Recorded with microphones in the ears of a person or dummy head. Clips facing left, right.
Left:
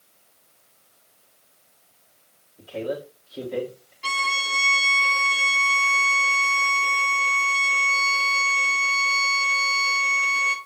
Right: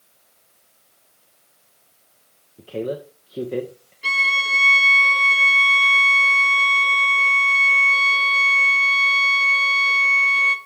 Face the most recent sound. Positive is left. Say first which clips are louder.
# even
turn(degrees=-15)  # may be behind; listen again after turning